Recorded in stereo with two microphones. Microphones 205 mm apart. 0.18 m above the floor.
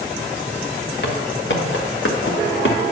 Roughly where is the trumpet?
No trumpet in this recording.